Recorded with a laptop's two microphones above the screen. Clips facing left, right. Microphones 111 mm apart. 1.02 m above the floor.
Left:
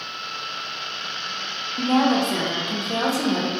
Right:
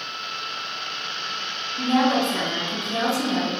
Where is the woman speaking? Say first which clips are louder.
Left 1 dB; 40° left (ahead or behind), 0.5 m.